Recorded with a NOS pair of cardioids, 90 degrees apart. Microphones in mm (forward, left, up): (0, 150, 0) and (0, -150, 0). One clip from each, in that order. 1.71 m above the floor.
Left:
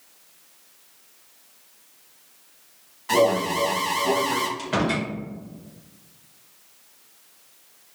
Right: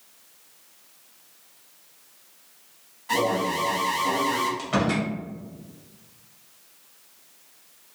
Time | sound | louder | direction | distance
3.1 | an alarm | left 4 dB | 35° left | 1.2 m
4.6 | a door slam | left 1 dB | 10° left | 1.9 m